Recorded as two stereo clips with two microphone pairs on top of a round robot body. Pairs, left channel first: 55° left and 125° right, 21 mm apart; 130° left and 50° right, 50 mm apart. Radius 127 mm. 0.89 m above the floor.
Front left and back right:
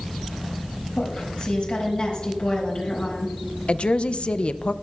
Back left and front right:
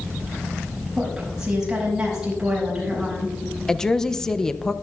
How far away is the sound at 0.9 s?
About 6 m.